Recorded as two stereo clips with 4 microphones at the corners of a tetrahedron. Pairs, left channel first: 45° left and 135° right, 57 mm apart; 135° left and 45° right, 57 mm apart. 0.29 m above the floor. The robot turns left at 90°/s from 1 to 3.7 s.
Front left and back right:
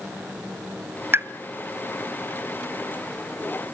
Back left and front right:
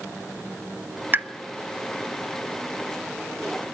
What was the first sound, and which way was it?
A pop, 95° right.